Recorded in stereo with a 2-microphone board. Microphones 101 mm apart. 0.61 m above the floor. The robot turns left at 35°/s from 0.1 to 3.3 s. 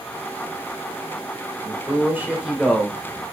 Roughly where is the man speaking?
Behind right.